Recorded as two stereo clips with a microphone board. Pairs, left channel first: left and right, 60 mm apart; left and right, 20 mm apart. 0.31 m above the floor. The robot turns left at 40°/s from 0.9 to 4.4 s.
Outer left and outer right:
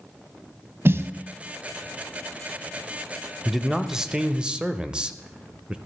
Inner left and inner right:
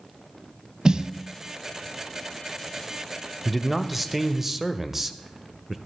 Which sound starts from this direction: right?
A snare drum, at 0.8 s.